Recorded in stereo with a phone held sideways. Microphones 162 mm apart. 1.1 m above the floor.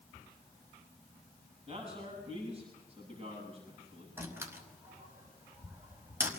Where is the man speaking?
35° right (ahead or behind), 8.5 m.